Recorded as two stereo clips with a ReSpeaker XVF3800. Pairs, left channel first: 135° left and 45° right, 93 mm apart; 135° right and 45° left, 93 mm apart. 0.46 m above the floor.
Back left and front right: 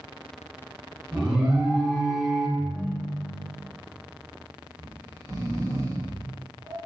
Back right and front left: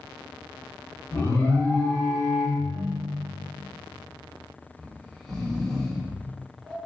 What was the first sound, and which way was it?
An alarm, 120° right.